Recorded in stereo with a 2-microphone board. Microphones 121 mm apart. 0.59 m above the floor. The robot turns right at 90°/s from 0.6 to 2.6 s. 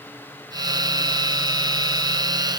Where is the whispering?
I don't hear whispering.